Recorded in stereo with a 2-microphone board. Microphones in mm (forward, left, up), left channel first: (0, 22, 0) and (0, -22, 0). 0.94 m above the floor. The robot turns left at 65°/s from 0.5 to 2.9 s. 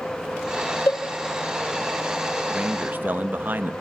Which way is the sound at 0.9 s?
65° left (ahead or behind).